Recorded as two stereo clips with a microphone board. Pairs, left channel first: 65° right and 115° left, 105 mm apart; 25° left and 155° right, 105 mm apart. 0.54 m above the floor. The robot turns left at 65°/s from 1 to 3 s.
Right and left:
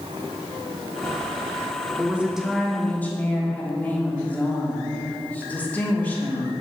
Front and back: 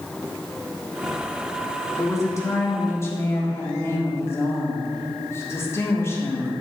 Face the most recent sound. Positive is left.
turn(degrees=-10)